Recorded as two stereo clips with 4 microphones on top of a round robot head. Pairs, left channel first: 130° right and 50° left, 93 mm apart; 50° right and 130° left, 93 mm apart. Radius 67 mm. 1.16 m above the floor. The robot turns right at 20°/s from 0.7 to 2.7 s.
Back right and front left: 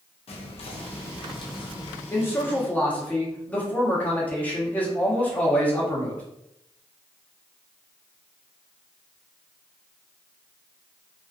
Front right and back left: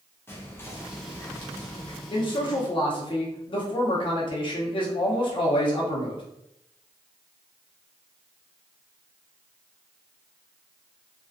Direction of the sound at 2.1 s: 70° right.